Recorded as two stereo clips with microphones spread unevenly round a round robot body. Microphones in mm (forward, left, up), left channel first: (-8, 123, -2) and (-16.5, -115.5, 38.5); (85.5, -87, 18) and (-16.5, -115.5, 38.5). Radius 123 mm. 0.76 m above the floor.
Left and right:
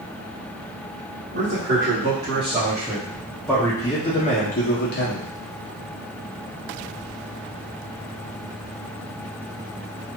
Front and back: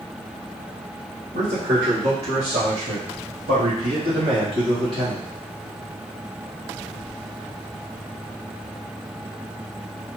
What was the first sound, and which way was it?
A man speaking, 145° right.